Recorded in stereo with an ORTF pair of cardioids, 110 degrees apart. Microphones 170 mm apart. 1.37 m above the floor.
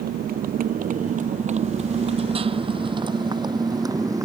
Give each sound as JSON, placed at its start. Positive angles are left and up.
{"t": 0.0, "sound": "a motorcycle", "azimuth_deg": -60}